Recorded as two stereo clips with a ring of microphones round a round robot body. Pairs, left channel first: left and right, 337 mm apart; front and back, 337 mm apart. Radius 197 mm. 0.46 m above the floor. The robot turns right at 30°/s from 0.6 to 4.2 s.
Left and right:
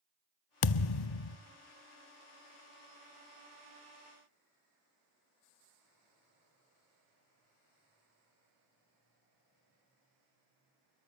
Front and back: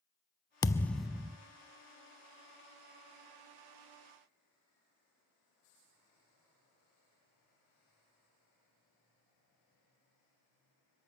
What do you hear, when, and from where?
0.6 s a thud: 80° left, 0.5 m; by 1.4 s 100° left, 0.5 m